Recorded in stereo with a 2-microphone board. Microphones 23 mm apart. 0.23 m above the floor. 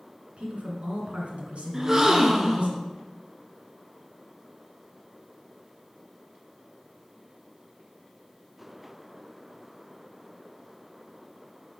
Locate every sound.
0.4 s a woman speaking: 60° right (ahead or behind), 2 m
1.7 s a gasp: 20° right (ahead or behind), 0.9 m